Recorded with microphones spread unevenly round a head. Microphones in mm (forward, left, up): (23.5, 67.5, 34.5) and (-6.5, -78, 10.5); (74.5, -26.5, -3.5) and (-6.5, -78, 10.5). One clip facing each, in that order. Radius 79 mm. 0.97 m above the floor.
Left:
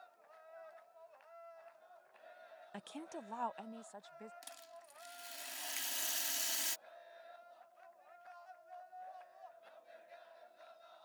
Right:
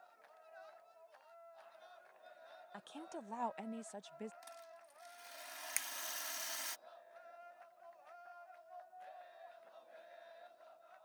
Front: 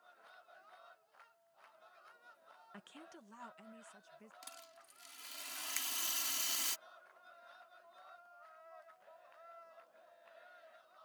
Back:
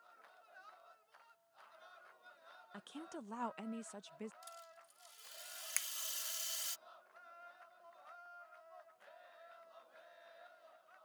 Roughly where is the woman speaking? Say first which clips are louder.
Left 2 dB, back 7 dB; behind left.